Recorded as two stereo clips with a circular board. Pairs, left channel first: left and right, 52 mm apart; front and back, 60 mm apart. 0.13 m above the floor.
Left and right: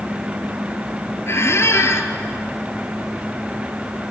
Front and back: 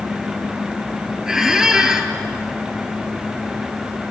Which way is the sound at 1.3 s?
100° left.